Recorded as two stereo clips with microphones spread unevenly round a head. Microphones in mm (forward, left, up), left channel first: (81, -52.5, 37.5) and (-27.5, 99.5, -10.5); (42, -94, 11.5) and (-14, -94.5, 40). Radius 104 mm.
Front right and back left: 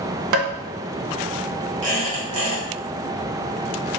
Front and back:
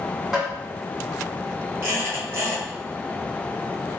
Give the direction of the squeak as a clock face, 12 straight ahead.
6 o'clock.